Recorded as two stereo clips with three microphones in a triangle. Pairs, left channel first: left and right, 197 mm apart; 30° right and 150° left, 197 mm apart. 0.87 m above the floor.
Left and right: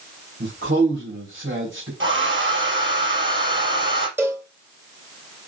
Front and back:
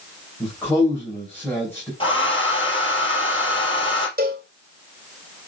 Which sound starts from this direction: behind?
A cowbell, at 4.2 s.